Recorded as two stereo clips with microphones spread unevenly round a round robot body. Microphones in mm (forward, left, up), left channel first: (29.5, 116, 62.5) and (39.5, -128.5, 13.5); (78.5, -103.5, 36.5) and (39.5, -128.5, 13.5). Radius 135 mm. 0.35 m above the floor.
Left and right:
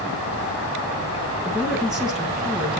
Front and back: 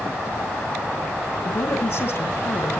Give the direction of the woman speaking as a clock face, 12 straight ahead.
12 o'clock.